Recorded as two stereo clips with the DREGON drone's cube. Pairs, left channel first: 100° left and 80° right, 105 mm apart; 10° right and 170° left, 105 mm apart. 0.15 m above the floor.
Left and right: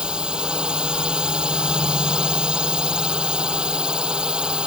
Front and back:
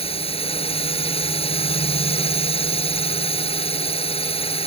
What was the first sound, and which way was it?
A drone, straight ahead.